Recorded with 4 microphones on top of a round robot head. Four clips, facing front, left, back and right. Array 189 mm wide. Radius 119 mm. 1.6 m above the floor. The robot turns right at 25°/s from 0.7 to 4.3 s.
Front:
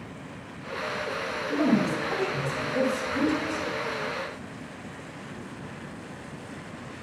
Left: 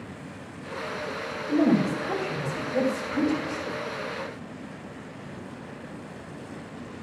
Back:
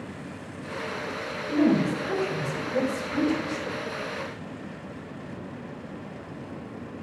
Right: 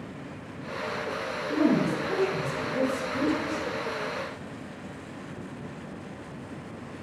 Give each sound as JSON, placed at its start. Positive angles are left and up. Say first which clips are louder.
{"t": 1.5, "sound": "a woman speaking", "louder": "left 2 dB, back 2 dB", "azimuth_deg": 120, "distance_m": 3.5}